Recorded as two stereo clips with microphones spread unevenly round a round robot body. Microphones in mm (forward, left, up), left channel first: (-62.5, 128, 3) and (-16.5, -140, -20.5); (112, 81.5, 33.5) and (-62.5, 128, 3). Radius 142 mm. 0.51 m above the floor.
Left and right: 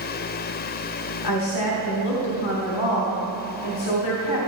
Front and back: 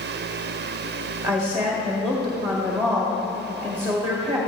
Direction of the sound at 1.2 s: 80° left.